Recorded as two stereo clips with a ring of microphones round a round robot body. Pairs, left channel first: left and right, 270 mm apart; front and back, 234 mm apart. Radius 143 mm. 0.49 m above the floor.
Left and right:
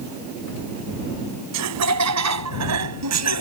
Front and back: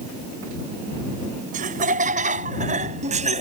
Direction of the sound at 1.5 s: 120° right.